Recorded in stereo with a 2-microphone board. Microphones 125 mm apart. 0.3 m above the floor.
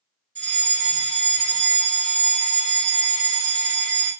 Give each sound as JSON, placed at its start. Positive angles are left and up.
{"t": 0.3, "sound": "a fire alarm", "side_deg": 15, "distance_m": 2.0}